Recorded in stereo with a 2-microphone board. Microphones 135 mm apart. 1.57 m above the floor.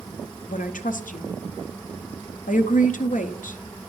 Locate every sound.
0.5 s a woman speaking: 80° left, 0.6 m